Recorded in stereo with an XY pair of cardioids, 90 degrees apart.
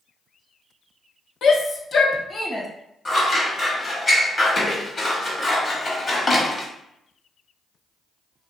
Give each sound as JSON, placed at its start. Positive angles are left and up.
{"t": 1.4, "sound": "a shout", "azimuth_deg": 70, "distance_m": 0.6}
{"t": 3.0, "sound": "scissors", "azimuth_deg": 35, "distance_m": 1.0}